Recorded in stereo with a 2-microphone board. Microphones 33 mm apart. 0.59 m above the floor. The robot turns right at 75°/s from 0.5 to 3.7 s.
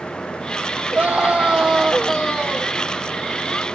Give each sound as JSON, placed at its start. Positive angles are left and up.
{"t": 0.9, "sound": "a scream", "azimuth_deg": -75, "distance_m": 1.7}